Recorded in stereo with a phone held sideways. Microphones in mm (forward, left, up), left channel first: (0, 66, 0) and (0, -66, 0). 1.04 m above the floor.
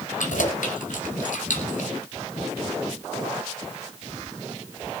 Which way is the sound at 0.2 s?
80° left.